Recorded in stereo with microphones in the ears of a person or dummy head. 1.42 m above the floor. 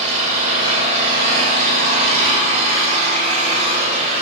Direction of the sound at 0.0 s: 45° right (ahead or behind).